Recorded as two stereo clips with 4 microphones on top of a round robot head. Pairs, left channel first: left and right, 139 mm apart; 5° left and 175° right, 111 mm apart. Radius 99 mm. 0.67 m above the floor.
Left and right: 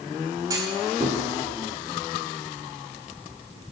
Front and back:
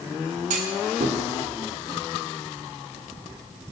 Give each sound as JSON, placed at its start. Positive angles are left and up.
{"t": 0.5, "sound": "a clunk", "azimuth_deg": -160, "distance_m": 1.2}